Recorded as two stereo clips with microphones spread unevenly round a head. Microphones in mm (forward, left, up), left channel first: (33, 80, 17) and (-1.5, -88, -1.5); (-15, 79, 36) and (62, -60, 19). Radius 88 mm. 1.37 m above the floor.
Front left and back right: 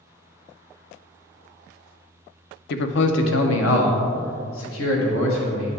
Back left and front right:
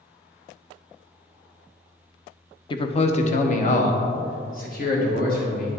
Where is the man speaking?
60° left, 0.6 m; by 5.7 s 90° left, 2.5 m.